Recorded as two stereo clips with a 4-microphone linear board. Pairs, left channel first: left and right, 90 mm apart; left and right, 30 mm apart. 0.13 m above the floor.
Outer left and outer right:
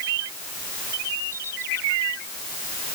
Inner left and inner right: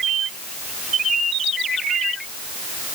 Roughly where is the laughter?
No laughter in this recording.